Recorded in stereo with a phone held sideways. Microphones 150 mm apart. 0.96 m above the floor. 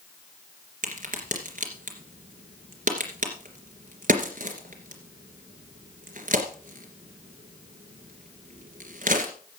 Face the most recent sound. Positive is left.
turn(degrees=-65)  # may be behind; listen again after turning